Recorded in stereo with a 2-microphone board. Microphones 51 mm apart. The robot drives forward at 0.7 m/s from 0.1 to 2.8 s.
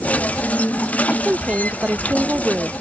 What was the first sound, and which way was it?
A woman speaking, 30° right (ahead or behind).